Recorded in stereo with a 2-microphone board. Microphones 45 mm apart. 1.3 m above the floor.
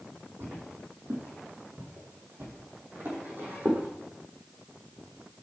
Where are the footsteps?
60° right (ahead or behind), 3 m; by 3.9 s 45° right (ahead or behind), 3.5 m.